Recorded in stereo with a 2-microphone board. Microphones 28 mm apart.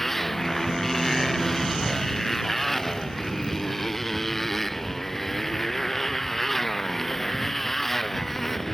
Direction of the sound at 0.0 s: 10° left (ahead or behind).